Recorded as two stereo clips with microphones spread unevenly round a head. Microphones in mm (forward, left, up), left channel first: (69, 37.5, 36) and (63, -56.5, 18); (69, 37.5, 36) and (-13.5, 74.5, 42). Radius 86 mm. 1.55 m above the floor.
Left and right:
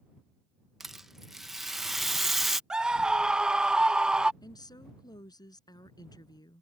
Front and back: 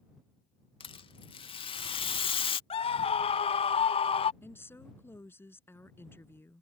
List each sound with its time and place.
0.8 s a rattle: 5° right
2.7 s a scream: 10° right
4.4 s a woman speaking: 40° left